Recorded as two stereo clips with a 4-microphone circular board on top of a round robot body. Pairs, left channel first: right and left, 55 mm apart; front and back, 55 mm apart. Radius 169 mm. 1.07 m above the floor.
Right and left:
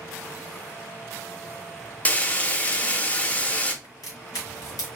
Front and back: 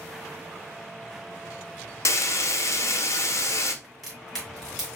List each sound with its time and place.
2.0 s frying: 25° right, 0.8 m
3.8 s a crack: 90° right, 1.7 m